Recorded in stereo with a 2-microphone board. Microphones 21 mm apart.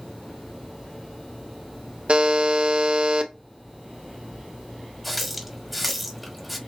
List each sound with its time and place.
2.1 s a buzzer: 60° right (ahead or behind), 1.0 m
5.0 s a running tap: 5° left (ahead or behind), 1.3 m